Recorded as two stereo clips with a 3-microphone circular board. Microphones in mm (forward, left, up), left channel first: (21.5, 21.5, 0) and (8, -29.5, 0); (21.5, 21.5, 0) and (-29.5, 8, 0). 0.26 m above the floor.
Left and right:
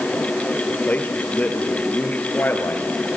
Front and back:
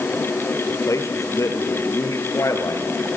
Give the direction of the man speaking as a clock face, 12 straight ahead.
12 o'clock.